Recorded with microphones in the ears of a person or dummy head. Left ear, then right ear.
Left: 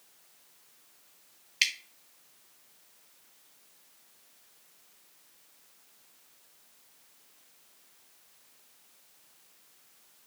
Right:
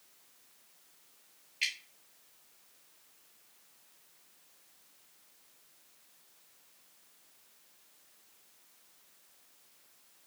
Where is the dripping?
55° left (ahead or behind), 1.3 m.